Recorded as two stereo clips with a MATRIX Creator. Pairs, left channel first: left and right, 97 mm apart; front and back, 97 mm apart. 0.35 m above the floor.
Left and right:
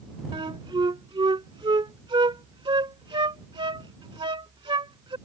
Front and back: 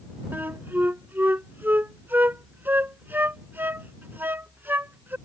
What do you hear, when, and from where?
0.3 s a flute: 110° right